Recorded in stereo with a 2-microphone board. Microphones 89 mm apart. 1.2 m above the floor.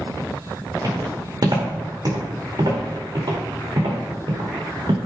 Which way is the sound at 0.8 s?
45° right (ahead or behind).